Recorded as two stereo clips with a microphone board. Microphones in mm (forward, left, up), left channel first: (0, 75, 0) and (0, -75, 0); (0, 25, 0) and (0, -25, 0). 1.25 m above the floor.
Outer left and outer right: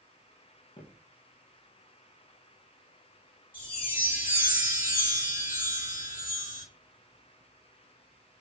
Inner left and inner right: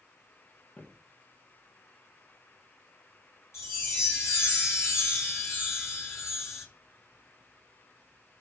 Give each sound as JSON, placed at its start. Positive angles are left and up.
{"t": 0.8, "sound": "footsteps", "side_deg": 35, "distance_m": 1.5}
{"t": 3.5, "sound": "a chime", "side_deg": 65, "distance_m": 3.0}